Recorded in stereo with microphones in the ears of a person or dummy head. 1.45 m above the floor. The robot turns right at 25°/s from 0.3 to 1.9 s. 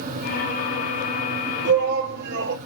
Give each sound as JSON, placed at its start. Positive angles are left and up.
{"t": 1.6, "sound": "a shout", "side_deg": -65, "distance_m": 2.5}